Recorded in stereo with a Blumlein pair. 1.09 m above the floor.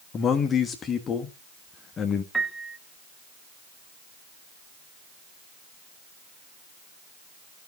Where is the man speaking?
20° left, 1.4 m.